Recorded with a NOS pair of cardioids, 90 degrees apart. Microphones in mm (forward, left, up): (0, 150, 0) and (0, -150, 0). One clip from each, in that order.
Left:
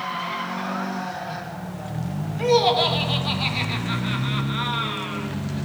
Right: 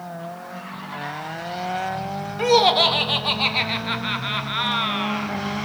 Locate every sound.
2.4 s laughter: 30° right, 1.1 m